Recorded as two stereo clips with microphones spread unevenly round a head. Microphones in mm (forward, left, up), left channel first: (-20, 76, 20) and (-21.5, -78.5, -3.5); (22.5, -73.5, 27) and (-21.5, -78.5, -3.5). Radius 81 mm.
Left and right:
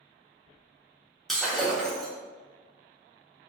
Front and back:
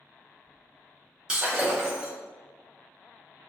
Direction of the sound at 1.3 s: 25° left.